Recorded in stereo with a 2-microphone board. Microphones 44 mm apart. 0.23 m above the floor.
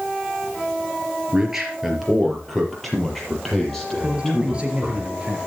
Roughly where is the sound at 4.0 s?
Right.